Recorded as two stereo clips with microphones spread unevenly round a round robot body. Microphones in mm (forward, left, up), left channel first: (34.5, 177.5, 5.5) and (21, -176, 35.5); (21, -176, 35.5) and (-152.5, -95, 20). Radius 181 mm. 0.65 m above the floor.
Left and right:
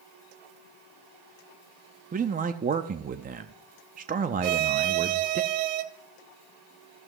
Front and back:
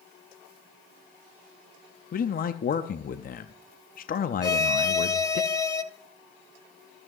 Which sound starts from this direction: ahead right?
A man speaking, at 2.1 s.